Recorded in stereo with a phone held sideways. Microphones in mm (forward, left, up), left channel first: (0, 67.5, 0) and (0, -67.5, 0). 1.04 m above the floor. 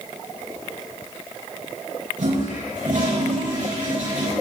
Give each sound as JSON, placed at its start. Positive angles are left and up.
{"t": 2.2, "sound": "a toilet flushing", "side_deg": -85, "distance_m": 8.5}